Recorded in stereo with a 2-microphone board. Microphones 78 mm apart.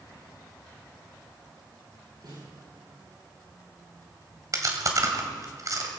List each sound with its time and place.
2.2 s a snare drum: 70° right (ahead or behind), 8.5 m
4.5 s chewing: 45° right (ahead or behind), 2.5 m